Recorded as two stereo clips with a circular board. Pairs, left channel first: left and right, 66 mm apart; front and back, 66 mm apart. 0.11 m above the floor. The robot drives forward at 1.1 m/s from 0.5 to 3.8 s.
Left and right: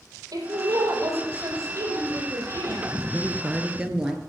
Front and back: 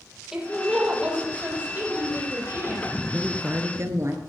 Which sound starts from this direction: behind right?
A woman speaking, at 3.1 s.